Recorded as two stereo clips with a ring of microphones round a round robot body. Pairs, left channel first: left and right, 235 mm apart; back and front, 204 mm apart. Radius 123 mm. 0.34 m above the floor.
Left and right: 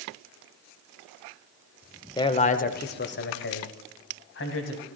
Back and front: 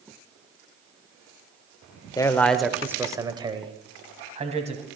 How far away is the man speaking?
About 0.9 m.